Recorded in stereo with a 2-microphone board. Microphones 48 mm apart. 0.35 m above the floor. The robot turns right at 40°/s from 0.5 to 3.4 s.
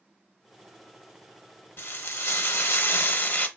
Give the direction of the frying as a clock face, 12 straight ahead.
10 o'clock.